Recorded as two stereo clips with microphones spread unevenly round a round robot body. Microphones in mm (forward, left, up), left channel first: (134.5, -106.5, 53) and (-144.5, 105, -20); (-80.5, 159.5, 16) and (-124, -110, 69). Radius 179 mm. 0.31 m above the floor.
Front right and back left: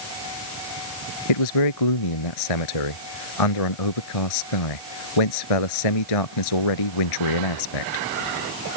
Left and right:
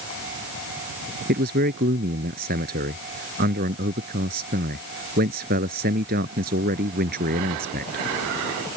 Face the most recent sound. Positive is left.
turn(degrees=-35)